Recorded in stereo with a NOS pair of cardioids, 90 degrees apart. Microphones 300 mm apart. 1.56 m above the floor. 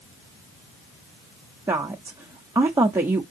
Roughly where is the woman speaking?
Ahead.